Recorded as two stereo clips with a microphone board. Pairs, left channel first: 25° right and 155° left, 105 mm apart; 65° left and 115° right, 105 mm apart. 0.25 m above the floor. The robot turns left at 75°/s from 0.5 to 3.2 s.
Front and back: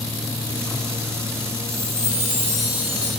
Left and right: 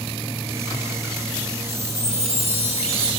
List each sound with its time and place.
1.7 s a chime: 45° right, 7.5 m; by 3.1 s 150° right, 7.5 m